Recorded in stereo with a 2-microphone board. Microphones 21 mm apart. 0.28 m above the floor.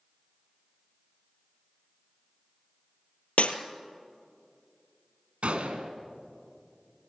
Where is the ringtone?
No ringtone in this recording.